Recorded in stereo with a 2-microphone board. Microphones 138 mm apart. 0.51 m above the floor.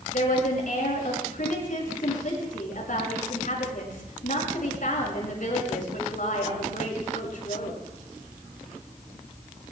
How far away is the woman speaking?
About 7 m.